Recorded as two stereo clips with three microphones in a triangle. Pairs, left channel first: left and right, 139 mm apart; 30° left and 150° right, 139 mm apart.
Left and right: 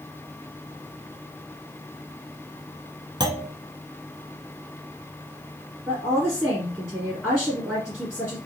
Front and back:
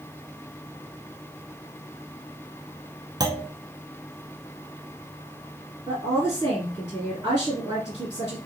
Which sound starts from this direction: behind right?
A clunk, at 3.2 s.